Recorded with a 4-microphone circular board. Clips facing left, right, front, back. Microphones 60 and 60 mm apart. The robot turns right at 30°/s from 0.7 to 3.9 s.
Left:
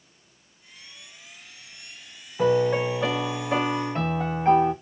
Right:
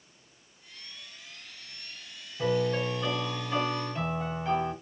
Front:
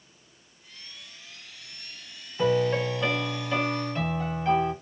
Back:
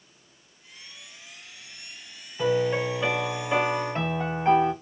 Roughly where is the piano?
Left.